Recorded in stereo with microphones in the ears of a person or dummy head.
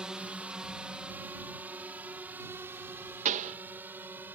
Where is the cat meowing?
No cat meowing in this recording.